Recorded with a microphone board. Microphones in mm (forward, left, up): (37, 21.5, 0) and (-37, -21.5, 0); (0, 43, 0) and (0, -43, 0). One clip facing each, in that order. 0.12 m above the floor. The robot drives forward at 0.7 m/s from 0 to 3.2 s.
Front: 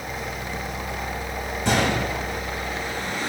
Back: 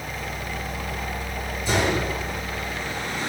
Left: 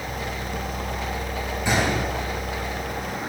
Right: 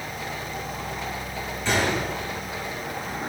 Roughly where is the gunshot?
Ahead.